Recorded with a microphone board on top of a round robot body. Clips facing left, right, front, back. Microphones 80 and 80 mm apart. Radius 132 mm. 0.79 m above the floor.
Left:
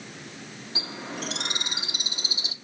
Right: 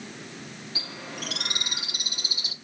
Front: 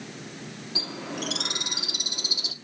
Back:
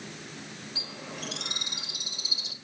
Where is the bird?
25° left, 0.6 m.